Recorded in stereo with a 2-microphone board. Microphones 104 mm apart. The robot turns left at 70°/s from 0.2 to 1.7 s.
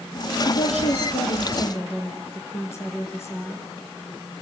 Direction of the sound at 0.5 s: 110° left.